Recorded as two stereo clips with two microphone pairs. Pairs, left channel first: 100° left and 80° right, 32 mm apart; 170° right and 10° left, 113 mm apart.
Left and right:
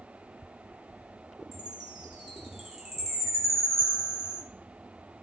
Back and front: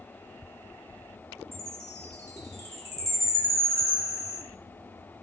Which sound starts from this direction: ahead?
A chime, at 1.5 s.